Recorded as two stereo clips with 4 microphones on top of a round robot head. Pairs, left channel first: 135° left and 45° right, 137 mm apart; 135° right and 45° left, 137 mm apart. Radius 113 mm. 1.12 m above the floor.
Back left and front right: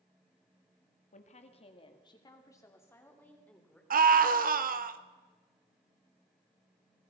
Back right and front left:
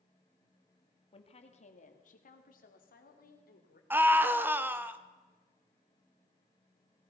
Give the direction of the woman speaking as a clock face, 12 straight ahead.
6 o'clock.